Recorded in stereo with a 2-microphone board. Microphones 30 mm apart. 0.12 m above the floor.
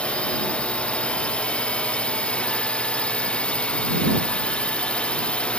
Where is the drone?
40° left (ahead or behind).